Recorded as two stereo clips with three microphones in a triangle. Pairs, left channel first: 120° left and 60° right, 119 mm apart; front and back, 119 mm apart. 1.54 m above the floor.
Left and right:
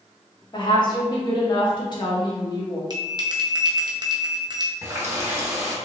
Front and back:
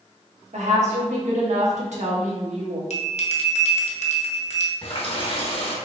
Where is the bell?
5° right, 0.7 m.